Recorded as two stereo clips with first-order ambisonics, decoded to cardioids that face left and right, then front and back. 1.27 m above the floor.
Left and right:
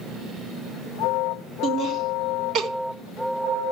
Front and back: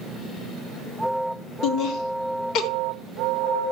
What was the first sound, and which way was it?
Laughter, 40° right.